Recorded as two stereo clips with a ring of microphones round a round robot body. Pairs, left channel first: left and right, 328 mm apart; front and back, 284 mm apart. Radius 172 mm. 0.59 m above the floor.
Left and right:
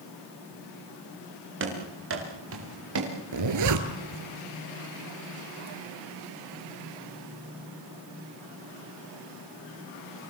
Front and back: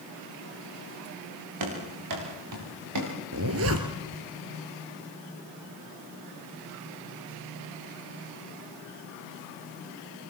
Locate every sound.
1.6 s running footsteps: 145° right, 9 m; by 3.1 s 135° right, 7 m
3.3 s a zipper: 130° right, 2 m